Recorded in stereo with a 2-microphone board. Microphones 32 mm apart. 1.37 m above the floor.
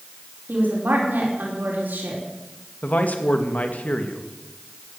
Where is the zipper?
No zipper in this recording.